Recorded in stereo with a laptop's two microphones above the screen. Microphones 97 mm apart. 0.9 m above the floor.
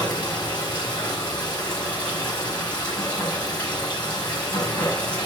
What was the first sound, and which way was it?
Running water, 15° left (ahead or behind).